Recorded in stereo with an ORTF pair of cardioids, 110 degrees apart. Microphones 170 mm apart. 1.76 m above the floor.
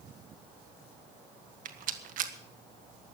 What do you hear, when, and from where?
1.6 s a rattle: 55° right, 1.5 m